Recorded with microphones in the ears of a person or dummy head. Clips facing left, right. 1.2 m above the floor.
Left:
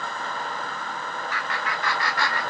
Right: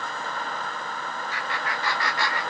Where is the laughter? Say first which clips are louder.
Left 1 dB; 25° right (ahead or behind), 3 m; by 2.4 s 15° right (ahead or behind), 3 m.